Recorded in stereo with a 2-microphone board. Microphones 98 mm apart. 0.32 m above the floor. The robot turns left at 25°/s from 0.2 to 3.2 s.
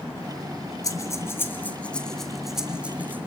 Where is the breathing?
35° left (ahead or behind), 1.8 m; by 3.3 s 20° right (ahead or behind), 1.8 m.